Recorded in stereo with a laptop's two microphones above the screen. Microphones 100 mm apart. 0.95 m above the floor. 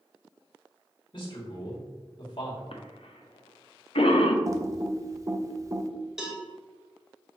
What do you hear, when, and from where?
1.1 s a man speaking: 50° left (ahead or behind), 1.8 m
2.7 s a cough: 70° left (ahead or behind), 0.7 m
4.5 s typing on a keyboard: 35° right (ahead or behind), 0.5 m
6.2 s a cowbell: 5° right (ahead or behind), 1.1 m